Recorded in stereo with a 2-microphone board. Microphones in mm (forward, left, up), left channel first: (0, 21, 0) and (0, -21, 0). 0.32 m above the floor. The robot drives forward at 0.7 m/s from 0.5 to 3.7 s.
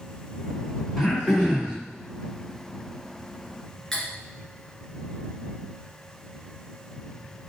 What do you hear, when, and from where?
1.0 s throat clearing: 5° left (ahead or behind), 3.5 m
3.9 s cutlery clinking: 5° left (ahead or behind), 2.5 m